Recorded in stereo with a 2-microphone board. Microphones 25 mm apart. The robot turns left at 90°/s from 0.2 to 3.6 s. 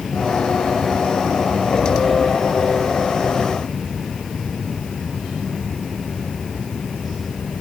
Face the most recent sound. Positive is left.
No sound to turn to.